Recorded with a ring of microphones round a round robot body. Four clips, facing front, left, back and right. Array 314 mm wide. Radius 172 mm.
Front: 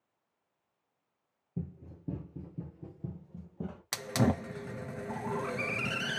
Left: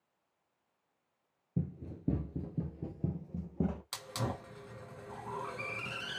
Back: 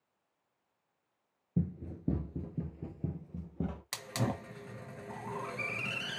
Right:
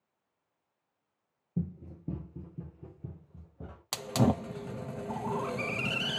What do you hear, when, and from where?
1.6 s running footsteps: 175° right, 1.0 m; by 3.8 s 105° left, 1.7 m
3.9 s a hiss: 60° right, 0.6 m